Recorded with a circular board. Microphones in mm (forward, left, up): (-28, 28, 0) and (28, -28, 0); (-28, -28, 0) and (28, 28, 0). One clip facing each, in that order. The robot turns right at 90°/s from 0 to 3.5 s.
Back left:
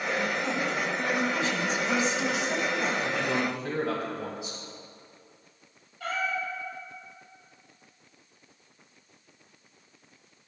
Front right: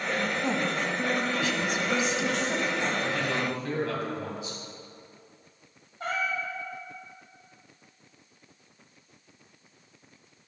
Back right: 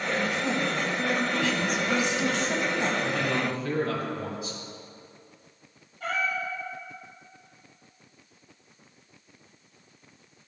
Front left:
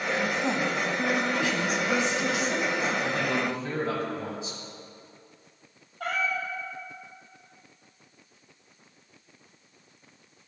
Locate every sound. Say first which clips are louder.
0.4 s a woman speaking: front right 1 dB, even; 15° left, 1.3 m; by 2.9 s 120° right, 1.3 m
3.0 s a man speaking: back left 1 dB, even; 35° left, 1.7 m; by 4.6 s 80° left, 1.7 m
6.0 s a cat meowing: even, even; 15° left, 2.5 m